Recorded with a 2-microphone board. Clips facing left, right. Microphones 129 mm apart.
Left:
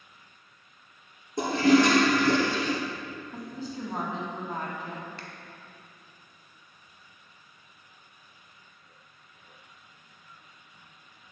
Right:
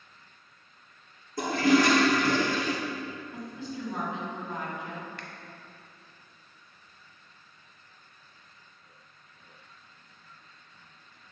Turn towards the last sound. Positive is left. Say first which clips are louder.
# even
turn(degrees=35)  # may be behind; listen again after turning